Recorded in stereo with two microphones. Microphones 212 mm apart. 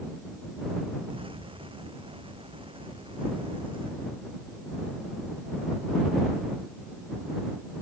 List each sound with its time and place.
1.1 s an explosion: 25° right (ahead or behind)